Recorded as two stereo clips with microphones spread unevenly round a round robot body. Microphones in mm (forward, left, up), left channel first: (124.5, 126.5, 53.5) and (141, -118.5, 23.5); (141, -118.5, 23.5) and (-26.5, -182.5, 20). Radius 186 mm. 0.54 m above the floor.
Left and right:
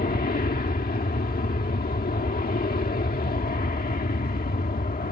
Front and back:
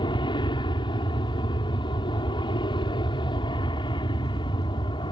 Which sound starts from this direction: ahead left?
An aircraft, at 0.0 s.